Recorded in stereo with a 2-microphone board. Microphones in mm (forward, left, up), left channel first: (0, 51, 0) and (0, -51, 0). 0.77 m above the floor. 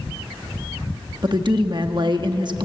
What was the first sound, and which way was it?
A woman speaking, 45° right (ahead or behind).